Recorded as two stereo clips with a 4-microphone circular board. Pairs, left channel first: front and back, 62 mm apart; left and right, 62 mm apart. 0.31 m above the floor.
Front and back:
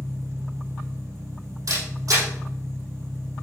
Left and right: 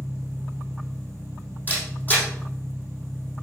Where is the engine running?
145° left, 5 m.